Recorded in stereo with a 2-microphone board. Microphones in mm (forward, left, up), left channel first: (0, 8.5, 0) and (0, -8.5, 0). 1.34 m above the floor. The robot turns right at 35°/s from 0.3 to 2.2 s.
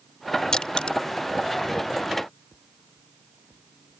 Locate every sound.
0.5 s crushing: 50° left (ahead or behind); by 1.0 s 65° left (ahead or behind)